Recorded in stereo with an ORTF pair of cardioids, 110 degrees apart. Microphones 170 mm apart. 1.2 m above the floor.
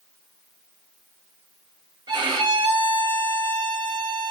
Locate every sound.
2.1 s a violin: 25° right, 3.5 m